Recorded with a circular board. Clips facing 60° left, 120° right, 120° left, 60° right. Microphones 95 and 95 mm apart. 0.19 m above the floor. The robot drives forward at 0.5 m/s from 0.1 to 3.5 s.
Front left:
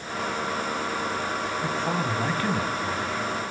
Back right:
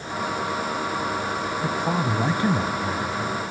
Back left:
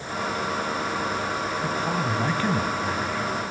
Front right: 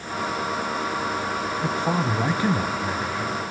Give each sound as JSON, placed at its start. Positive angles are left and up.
{"t": 1.6, "sound": "a man speaking", "azimuth_deg": -60, "distance_m": 1.2}